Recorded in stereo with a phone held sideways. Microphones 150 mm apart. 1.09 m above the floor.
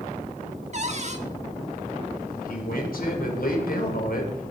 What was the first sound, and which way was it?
A cupboard door, 50° right (ahead or behind).